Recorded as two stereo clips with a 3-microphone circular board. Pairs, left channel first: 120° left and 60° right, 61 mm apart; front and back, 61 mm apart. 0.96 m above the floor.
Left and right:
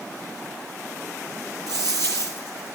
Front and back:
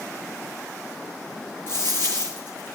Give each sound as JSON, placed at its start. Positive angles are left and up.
{"t": 1.7, "sound": "a dropped coin", "azimuth_deg": -55, "distance_m": 6.5}